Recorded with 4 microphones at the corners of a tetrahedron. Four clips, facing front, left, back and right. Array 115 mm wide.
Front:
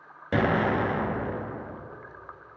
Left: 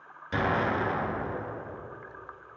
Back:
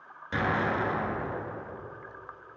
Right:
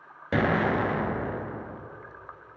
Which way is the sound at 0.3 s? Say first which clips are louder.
Right 3 dB, front 4 dB; 50° right.